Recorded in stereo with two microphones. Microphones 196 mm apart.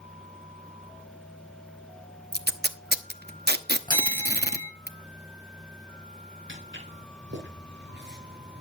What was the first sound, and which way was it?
Tape being pulled, 55° right (ahead or behind).